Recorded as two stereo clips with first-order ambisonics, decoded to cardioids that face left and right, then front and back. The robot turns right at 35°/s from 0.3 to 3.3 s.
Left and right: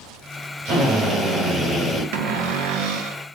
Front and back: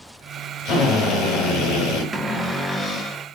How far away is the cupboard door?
About 0.5 m.